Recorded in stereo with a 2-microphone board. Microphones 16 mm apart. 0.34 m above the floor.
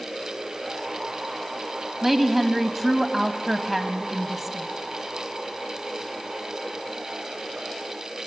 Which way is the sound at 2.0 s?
15° right (ahead or behind).